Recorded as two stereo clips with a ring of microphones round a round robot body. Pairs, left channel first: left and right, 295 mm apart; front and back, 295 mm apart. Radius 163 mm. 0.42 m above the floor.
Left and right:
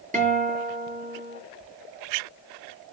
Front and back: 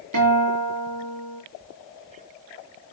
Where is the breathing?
No breathing in this recording.